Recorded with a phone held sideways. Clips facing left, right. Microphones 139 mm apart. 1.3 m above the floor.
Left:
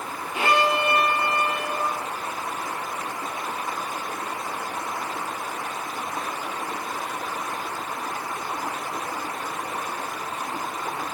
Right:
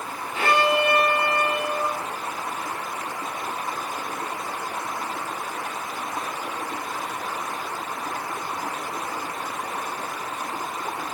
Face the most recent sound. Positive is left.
turn(degrees=15)  # may be behind; listen again after turning